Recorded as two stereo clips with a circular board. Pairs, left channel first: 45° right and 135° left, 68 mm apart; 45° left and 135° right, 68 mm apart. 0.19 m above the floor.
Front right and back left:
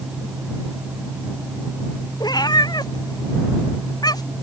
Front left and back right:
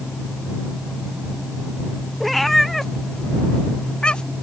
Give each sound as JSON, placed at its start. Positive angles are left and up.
{"t": 2.2, "sound": "a cat meowing", "azimuth_deg": -45}